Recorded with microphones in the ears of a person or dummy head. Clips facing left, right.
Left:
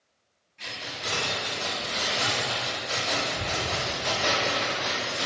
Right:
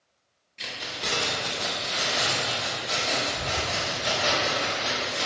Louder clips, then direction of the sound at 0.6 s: Right 2 dB; 40° right (ahead or behind).